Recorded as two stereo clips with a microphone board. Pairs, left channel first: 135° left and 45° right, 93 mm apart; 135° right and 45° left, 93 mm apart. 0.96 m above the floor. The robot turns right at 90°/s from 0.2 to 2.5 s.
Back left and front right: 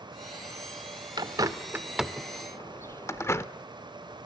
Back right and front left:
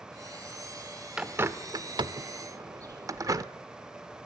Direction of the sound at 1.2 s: 35° right.